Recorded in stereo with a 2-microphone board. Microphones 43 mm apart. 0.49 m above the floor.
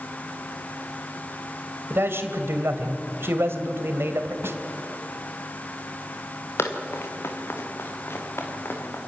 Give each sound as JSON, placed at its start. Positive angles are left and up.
{"t": 1.9, "sound": "a man speaking", "side_deg": -65, "distance_m": 2.0}
{"t": 4.4, "sound": "a snare drum", "side_deg": -70, "distance_m": 1.4}
{"t": 6.6, "sound": "running footsteps", "side_deg": 80, "distance_m": 2.5}